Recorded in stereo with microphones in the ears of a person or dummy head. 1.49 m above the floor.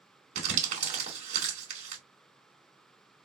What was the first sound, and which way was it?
Crumpling, 50° right (ahead or behind).